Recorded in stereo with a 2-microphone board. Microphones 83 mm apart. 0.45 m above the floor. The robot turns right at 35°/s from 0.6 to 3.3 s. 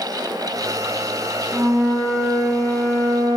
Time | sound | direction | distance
1.5 | a flute | 15° right | 3 m